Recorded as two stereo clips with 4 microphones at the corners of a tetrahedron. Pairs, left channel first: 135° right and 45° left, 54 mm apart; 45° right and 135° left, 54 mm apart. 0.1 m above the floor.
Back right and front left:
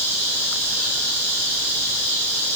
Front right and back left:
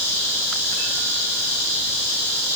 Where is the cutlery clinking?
No cutlery clinking in this recording.